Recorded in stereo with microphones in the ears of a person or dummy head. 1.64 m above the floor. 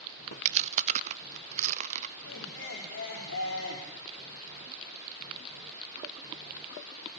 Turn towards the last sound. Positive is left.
turn(degrees=70)  # may be behind; listen again after turning